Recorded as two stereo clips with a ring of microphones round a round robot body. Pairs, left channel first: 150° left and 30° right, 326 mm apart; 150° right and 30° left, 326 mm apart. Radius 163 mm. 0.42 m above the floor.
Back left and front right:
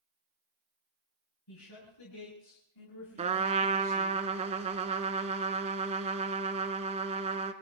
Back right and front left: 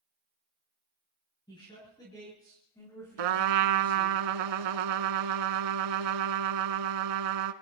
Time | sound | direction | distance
1.5 | a man speaking | 135° left | 6.5 m
3.2 | a trumpet | 40° left | 1.0 m